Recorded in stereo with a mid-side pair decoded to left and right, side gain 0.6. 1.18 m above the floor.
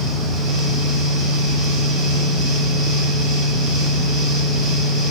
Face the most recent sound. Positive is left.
turn(degrees=-60)